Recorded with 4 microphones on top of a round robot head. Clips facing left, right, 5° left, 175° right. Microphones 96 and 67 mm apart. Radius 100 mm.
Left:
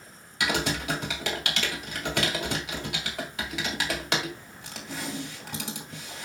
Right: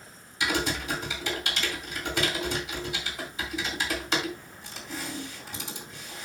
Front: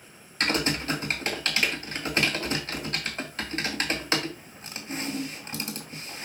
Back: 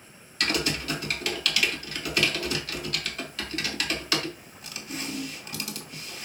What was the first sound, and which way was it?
Typing on a keyboard, 65° left.